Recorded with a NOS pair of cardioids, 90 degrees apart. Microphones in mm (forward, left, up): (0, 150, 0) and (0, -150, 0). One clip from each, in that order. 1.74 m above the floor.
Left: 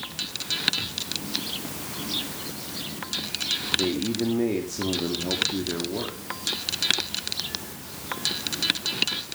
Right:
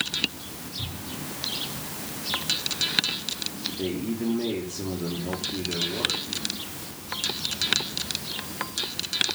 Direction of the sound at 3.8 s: 25° left.